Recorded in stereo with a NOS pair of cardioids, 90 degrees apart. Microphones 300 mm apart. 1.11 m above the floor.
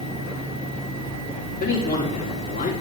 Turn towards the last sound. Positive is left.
turn(degrees=30)